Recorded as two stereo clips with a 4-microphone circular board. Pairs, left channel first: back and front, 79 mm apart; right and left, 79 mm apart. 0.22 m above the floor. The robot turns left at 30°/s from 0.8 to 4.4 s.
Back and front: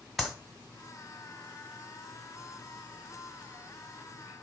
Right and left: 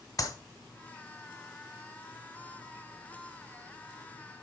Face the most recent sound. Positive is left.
turn(degrees=160)